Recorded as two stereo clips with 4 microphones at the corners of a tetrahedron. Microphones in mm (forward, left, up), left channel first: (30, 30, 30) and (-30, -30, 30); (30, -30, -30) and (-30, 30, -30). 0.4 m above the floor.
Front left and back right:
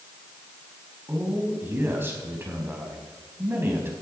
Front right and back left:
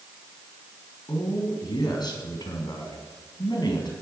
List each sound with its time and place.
1.1 s a man speaking: 75° right, 3.5 m